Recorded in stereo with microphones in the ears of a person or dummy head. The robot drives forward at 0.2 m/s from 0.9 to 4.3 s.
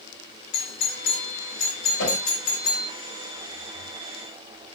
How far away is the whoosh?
About 1.6 m.